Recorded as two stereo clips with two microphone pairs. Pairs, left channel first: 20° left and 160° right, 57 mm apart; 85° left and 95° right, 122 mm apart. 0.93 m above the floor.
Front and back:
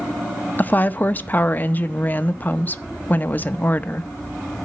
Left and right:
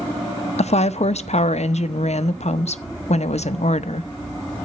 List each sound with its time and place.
0.6 s a woman speaking: 75° left, 0.6 m